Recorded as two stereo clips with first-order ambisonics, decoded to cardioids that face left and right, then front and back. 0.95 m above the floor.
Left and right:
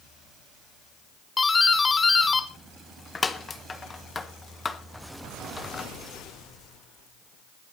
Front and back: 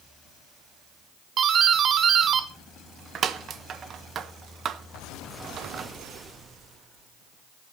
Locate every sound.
1.4 s a doorbell: 150° left, 0.8 m